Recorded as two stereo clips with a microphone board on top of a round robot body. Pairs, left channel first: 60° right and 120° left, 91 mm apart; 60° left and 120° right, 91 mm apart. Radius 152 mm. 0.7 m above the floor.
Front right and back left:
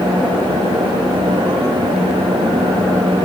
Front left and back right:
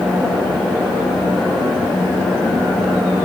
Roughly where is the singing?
No singing in this recording.